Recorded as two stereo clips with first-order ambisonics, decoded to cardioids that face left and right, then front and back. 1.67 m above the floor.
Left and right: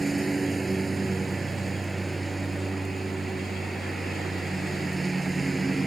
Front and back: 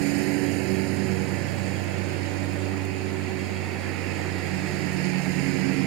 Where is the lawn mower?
165° right.